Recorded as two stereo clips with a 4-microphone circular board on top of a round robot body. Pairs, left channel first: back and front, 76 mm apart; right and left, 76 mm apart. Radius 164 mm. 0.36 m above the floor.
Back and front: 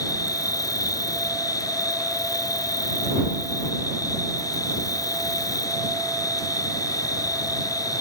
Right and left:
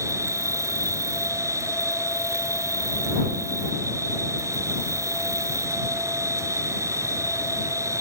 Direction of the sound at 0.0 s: 140° left.